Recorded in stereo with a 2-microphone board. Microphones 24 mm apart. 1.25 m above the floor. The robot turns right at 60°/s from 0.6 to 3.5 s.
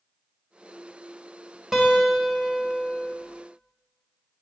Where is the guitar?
25° right, 3 m; by 3.1 s 60° left, 3 m.